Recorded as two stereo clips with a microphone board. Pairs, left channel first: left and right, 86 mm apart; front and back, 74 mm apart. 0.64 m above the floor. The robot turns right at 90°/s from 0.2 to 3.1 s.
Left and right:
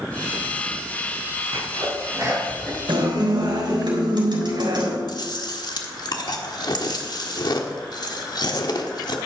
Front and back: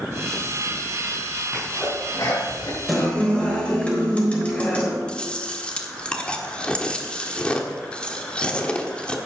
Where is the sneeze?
100° right, 5 m; by 2.8 s 15° left, 5 m.